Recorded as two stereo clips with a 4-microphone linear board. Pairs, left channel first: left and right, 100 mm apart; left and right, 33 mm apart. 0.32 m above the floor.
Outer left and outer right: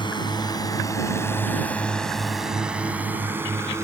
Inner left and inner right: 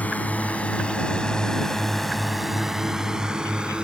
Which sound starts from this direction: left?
A drone, at 0.0 s.